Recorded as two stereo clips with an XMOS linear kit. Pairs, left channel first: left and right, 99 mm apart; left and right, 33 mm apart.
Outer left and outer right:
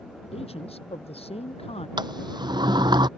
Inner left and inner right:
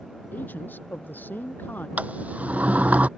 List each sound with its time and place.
0.3 s a man speaking: 75° left (ahead or behind)
2.0 s a sliding door: 45° right (ahead or behind)